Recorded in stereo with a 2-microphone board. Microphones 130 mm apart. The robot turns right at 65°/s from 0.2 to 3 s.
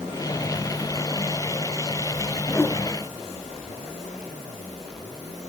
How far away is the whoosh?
About 0.7 m.